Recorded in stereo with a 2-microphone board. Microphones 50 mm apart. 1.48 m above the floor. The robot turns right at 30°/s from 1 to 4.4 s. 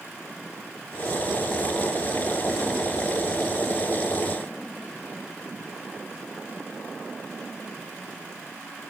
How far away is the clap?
I don't hear a clap.